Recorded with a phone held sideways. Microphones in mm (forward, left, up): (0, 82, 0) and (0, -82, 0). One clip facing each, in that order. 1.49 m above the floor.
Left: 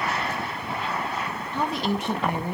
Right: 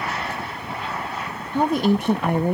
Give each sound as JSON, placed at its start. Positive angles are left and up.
{"t": 1.5, "sound": "a woman speaking", "side_deg": -50, "distance_m": 0.5}